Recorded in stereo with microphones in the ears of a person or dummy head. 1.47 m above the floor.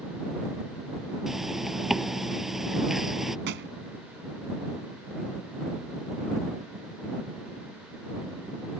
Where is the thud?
55° right (ahead or behind).